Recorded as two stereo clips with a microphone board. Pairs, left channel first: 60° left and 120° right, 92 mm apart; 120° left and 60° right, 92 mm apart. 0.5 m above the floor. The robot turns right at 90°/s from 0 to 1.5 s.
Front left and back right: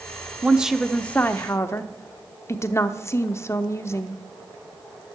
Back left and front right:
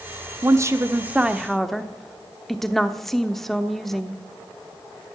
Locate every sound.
0.4 s a woman speaking: 60° right, 0.8 m; by 4.2 s 35° left, 0.8 m